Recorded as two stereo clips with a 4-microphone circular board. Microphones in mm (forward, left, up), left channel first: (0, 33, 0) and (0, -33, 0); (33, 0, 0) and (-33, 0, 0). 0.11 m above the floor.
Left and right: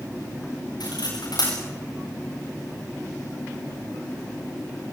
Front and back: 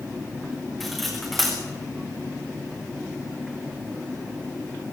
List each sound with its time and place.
0.8 s cutlery clinking: 90° left, 7.5 m